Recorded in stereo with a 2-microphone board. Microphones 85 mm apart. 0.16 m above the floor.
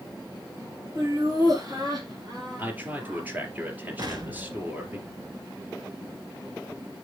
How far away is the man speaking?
About 3 m.